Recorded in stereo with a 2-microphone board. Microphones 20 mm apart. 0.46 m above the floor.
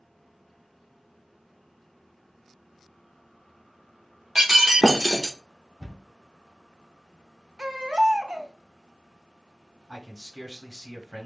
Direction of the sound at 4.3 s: 15° right (ahead or behind).